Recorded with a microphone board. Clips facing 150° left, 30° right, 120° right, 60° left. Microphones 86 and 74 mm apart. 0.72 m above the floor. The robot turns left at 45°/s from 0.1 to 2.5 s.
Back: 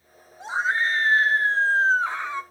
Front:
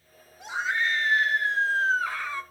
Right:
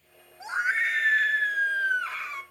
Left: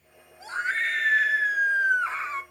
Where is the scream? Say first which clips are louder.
Back 4 dB, right 1 dB; straight behind, 1.1 m; by 2.4 s 90° left, 1.1 m.